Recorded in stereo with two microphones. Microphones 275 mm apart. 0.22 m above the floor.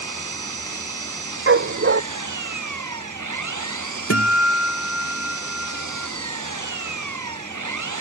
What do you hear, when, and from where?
0.0 s an engine running: 85° right
1.5 s a dog barking: 45° right (ahead or behind)
4.1 s a guitar: 55° left (ahead or behind)